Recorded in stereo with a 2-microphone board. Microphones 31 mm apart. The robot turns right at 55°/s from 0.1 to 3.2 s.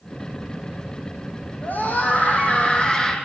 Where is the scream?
70° left, 5 m; by 3.1 s 155° left, 5 m.